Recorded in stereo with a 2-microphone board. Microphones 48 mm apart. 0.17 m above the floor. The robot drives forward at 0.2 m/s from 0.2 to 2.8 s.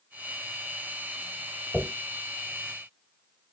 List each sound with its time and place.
1.7 s a dropped coin: 20° right (ahead or behind), 1.5 m